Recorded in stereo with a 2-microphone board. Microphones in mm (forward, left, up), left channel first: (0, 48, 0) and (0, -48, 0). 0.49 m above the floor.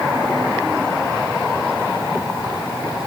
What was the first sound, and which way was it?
Only background noise.